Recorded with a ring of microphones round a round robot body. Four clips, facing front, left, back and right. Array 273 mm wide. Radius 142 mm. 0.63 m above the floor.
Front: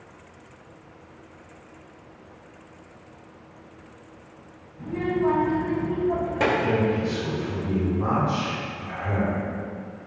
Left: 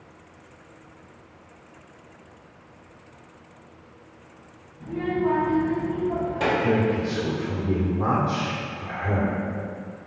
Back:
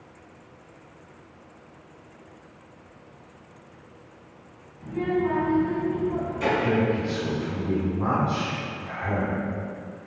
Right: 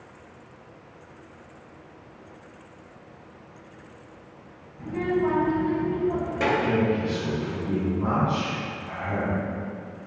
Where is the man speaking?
100° left, 2.5 m.